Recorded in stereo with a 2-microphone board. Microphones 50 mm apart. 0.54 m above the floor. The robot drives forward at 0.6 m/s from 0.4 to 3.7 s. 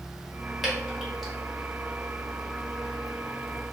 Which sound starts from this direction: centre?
Dripping, at 0.6 s.